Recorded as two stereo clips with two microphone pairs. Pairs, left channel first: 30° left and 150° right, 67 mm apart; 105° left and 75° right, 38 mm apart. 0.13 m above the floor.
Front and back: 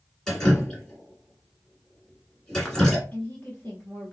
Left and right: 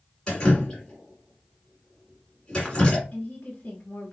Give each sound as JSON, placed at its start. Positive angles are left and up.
{"t": 0.3, "sound": "dripping", "azimuth_deg": 95, "distance_m": 1.8}
{"t": 3.1, "sound": "a woman speaking", "azimuth_deg": 70, "distance_m": 1.5}